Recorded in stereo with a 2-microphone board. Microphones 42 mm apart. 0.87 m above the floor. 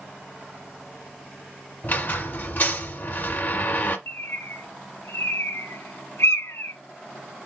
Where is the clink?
No clink in this recording.